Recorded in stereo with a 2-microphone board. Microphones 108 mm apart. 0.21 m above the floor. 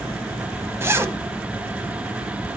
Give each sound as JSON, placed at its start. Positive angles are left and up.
{"t": 0.8, "sound": "a zipper", "side_deg": -25, "distance_m": 0.8}